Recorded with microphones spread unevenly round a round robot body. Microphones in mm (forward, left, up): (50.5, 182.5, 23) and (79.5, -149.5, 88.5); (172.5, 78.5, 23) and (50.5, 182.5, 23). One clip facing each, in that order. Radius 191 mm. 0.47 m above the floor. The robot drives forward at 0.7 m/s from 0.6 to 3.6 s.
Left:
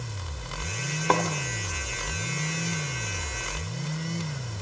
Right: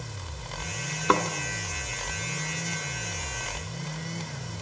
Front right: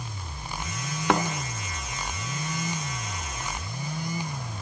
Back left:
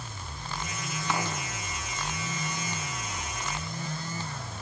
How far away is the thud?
About 2 m.